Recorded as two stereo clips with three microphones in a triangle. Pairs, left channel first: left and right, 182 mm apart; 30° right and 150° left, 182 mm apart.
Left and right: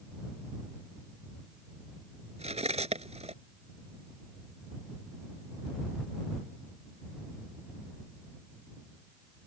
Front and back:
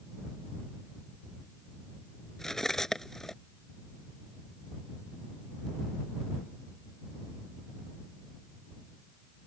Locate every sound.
2.4 s cutlery clinking: 115° right